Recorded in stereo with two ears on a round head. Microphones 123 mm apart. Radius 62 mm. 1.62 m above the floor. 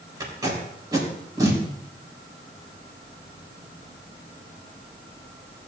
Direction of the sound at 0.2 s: 25° right (ahead or behind).